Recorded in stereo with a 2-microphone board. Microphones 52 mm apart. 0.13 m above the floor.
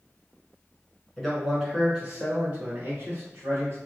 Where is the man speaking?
5° left (ahead or behind), 1.1 m; by 3.8 s 50° right (ahead or behind), 1.6 m.